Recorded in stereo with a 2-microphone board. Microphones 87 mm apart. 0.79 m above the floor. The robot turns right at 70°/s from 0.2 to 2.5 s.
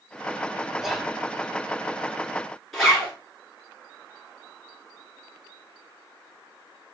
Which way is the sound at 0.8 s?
5° right (ahead or behind).